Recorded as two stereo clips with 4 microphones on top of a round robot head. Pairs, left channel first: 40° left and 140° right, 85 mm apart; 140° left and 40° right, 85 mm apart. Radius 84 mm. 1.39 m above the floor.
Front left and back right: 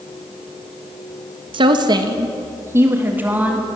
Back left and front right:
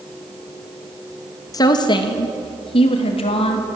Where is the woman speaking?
170° right, 1.7 m; by 3.7 s 145° left, 3 m.